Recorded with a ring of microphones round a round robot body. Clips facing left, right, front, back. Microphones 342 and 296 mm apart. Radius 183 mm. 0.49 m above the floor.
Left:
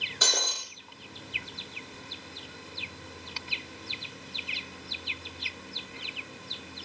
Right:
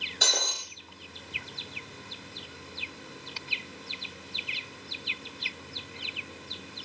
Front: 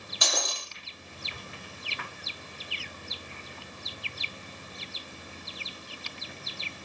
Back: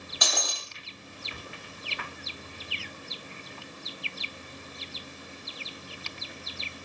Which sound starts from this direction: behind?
Breaking glass, at 0.2 s.